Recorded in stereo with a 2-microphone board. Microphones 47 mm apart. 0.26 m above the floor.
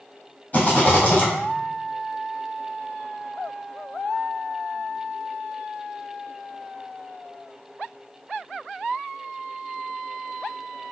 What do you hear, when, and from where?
0.5 s a rattle: 35° left (ahead or behind), 1.9 m